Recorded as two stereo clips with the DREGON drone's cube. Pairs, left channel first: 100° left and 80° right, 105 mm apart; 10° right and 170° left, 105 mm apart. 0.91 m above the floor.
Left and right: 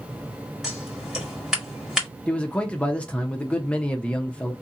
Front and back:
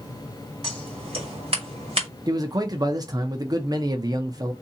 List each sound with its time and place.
0.6 s scissors: 165° right, 1.7 m
2.3 s a man speaking: 170° left, 0.6 m